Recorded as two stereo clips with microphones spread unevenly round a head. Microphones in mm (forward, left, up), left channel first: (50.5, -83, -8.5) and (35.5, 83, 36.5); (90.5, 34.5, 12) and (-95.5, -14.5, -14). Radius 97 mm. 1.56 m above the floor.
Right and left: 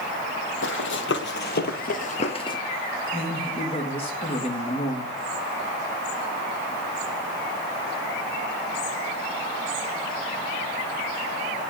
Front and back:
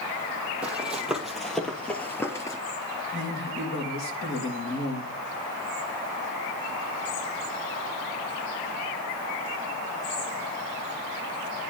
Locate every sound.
0.6 s running footsteps: 75° right, 3 m; by 2.6 s 15° right, 1.7 m
3.1 s a man speaking: 30° right, 3.5 m